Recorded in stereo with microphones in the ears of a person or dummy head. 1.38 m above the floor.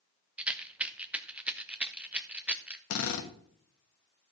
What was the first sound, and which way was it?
A rattle, 10° right (ahead or behind).